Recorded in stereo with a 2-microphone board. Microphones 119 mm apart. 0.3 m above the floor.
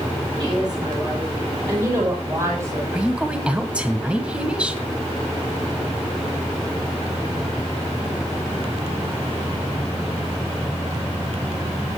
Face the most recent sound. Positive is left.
turn(degrees=-10)  # may be behind; listen again after turning